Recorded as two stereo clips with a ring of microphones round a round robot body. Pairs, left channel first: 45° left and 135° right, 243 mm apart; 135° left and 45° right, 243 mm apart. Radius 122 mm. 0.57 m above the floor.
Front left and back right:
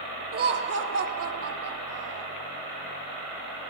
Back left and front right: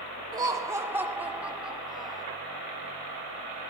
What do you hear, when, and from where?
0.3 s laughter: 110° right, 1.4 m; by 2.3 s 135° right, 2.5 m